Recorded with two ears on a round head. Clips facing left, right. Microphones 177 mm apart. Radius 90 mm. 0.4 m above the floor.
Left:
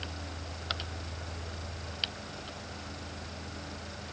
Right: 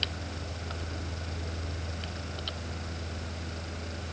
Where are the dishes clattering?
No dishes clattering in this recording.